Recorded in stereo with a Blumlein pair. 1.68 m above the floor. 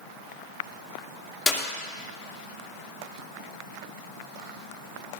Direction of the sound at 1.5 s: 5° left.